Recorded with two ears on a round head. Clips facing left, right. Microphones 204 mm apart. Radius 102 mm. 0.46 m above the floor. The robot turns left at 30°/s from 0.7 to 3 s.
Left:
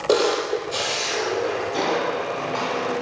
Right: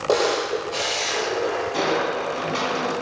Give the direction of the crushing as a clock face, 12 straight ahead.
12 o'clock.